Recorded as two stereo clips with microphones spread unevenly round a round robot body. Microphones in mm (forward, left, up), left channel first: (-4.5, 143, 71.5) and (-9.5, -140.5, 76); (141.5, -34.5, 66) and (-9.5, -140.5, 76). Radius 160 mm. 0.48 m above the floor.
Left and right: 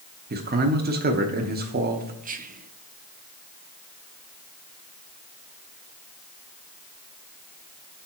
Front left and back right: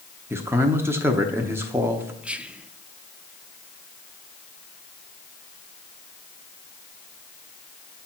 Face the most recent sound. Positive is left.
turn(degrees=-60)